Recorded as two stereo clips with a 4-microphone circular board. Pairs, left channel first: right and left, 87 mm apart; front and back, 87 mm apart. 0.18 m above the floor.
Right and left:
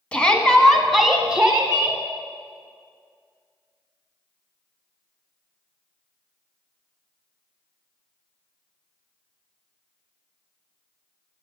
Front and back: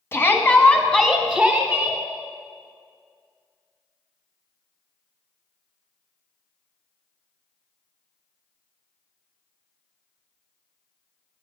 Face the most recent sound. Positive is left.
turn(degrees=130)